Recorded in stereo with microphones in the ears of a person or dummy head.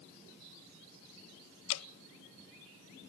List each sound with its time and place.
1.7 s dripping: 75° left (ahead or behind), 0.8 m